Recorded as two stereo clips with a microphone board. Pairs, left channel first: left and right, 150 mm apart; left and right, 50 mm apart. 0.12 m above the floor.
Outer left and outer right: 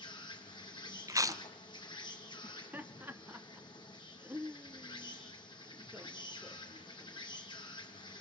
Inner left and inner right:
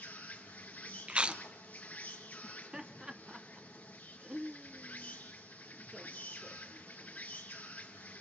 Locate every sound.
0.0 s an insect: 30° left (ahead or behind), 3 m
1.1 s chewing: 20° right (ahead or behind), 0.6 m
2.4 s laughter: 10° right (ahead or behind), 1.1 m